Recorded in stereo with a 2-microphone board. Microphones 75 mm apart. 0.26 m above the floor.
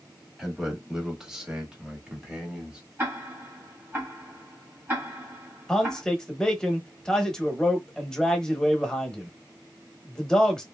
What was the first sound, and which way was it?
A man speaking, 5° right (ahead or behind).